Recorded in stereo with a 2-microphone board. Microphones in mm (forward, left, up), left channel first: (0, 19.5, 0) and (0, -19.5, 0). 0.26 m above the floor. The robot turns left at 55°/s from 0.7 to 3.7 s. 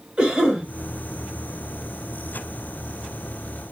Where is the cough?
20° right (ahead or behind), 1.6 m.